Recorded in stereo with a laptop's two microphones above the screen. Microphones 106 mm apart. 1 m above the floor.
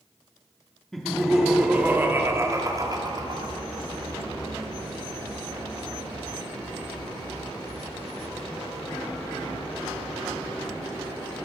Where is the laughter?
Centre (ahead or behind), 2.5 m; by 3.5 s 50° right (ahead or behind), 2.5 m.